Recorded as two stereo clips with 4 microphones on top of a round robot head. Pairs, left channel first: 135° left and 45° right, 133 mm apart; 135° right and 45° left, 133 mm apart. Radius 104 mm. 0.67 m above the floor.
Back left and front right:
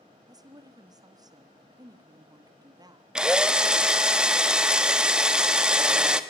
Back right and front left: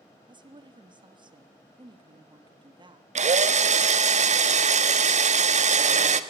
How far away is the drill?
About 1.1 m.